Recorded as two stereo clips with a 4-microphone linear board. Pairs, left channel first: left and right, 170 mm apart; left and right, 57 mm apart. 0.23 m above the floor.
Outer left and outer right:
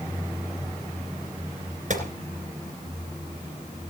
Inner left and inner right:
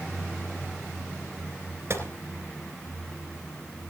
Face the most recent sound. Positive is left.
turn(degrees=-45)  # may be behind; listen again after turning